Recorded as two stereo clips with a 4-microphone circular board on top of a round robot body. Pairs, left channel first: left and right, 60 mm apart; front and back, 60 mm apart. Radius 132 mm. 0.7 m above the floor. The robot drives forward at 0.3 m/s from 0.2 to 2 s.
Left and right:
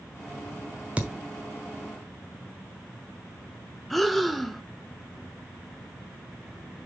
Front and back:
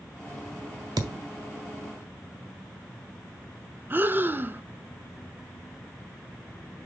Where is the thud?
160° right, 0.5 m; by 1.2 s 165° right, 0.6 m.